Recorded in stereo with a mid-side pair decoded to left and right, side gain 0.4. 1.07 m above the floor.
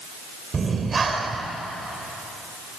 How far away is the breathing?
About 3 m.